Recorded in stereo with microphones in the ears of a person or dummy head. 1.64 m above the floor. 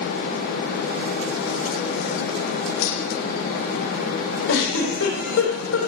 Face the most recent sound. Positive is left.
turn(degrees=60)  # may be behind; listen again after turning